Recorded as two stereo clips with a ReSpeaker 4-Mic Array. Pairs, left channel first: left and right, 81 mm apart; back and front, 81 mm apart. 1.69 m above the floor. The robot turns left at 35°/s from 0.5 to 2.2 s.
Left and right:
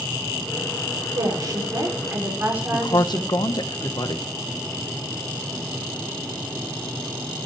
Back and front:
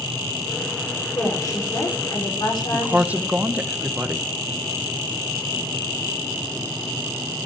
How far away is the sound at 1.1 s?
About 5.5 m.